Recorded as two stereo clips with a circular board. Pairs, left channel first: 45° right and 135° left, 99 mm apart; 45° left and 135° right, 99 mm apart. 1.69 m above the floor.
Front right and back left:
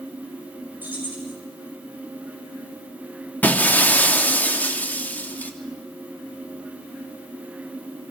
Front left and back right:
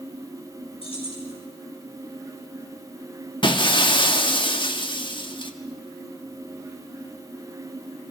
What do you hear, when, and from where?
0.8 s keys jangling: 65° left, 6 m
3.4 s breaking glass: 25° left, 1.7 m